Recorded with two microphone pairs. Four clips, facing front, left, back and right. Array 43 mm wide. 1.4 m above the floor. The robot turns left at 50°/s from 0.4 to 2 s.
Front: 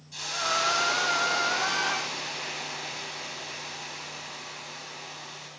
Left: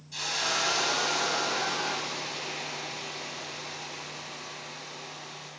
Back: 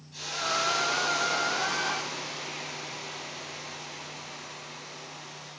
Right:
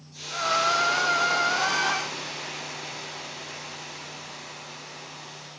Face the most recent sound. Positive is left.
turn(degrees=-15)